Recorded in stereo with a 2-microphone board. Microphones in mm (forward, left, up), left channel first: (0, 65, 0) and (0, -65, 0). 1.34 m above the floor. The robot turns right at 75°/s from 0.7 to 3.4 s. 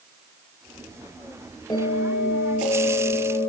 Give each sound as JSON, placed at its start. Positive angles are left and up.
{"t": 1.7, "sound": "a bell", "azimuth_deg": 35, "distance_m": 6.0}